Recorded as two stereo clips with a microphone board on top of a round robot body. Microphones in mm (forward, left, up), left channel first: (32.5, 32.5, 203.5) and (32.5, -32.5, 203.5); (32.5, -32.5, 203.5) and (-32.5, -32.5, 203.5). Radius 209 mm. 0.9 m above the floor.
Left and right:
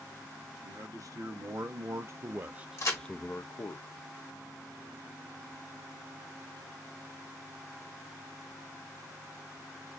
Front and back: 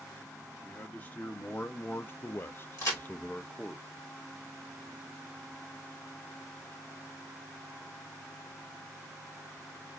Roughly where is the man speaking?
Ahead right.